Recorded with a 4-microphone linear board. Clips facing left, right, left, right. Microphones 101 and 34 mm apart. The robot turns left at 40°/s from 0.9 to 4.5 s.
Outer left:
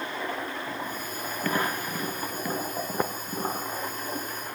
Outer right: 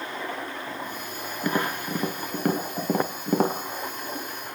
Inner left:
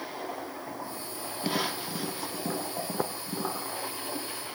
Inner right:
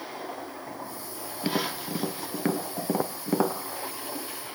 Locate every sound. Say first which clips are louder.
1.4 s tapping: outer right 2 dB, inner right 2 dB; 15° right (ahead or behind), 3 m; by 3.6 s 80° right, 3 m